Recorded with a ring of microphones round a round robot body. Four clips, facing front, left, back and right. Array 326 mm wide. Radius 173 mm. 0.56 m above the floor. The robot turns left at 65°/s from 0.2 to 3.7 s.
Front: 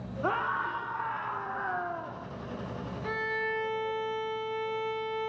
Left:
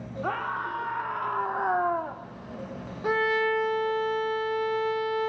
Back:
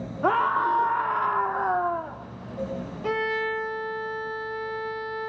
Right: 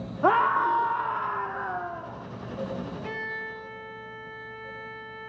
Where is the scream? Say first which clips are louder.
Right 10 dB, back 9 dB; 115° right, 1.6 m; by 2.2 s 120° left, 1.6 m.